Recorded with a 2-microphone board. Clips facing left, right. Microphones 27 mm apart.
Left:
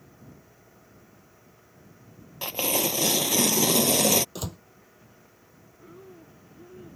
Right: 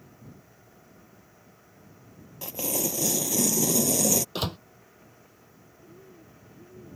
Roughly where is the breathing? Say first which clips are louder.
Left 4 dB; left.